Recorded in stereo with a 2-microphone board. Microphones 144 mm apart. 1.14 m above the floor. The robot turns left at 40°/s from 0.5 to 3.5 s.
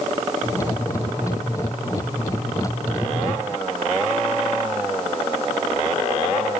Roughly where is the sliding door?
I don't hear a sliding door.